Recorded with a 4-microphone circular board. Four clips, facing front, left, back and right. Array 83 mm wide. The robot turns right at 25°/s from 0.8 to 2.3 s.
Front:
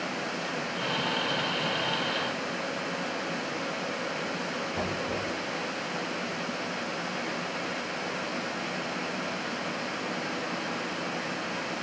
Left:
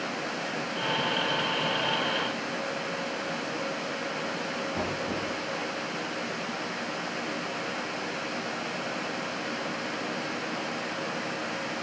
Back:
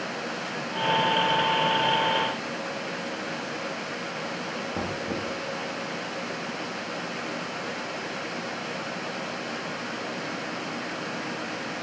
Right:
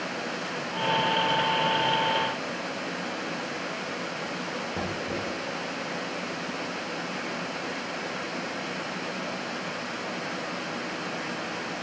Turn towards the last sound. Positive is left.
turn(degrees=-150)